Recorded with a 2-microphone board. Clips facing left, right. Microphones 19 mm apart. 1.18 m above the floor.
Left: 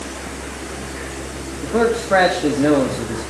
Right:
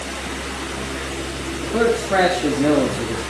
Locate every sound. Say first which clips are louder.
1.6 s a man speaking: left 1 dB; 80° left, 2 m